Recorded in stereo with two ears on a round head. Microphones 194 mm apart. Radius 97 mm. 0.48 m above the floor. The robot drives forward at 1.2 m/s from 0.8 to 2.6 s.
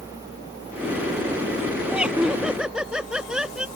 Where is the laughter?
5° right (ahead or behind).